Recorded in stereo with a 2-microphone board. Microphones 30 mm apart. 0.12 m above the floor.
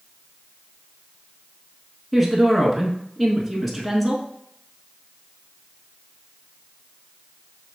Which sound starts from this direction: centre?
A woman speaking, at 2.1 s.